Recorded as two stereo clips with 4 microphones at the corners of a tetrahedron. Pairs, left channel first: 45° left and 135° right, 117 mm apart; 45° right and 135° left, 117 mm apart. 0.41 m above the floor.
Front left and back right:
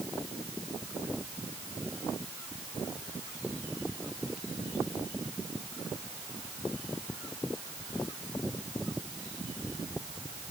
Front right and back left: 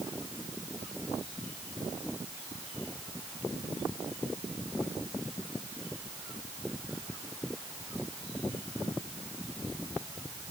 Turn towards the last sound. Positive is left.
No sound to turn to.